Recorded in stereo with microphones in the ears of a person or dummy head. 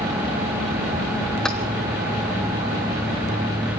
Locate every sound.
1.4 s keys jangling: centre (ahead or behind), 1.5 m